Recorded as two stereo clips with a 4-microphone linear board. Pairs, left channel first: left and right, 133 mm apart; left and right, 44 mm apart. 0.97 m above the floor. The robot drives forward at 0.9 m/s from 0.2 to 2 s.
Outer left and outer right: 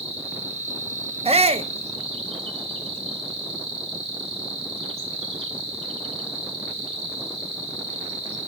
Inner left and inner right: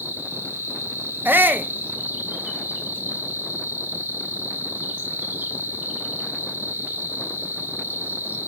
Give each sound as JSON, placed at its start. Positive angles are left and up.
{"t": 0.0, "sound": "an insect", "side_deg": -50, "distance_m": 1.5}
{"t": 1.2, "sound": "a shout", "side_deg": -50, "distance_m": 0.5}